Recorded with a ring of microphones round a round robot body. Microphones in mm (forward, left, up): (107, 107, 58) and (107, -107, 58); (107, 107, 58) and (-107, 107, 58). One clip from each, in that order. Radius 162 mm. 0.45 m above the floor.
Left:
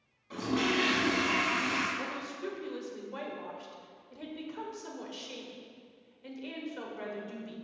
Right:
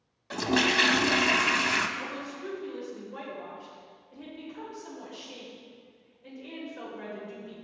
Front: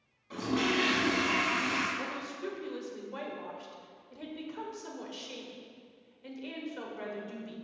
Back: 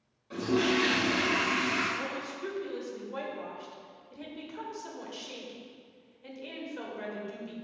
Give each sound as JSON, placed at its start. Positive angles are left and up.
{"t": 0.3, "sound": "a toilet flushing", "azimuth_deg": -80, "distance_m": 0.6}
{"t": 2.0, "sound": "a woman speaking", "azimuth_deg": 70, "distance_m": 2.0}